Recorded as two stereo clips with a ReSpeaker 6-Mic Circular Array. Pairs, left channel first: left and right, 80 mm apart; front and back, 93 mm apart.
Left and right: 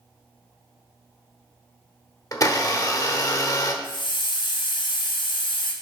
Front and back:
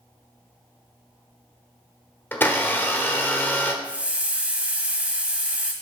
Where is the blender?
60° left, 1.1 m.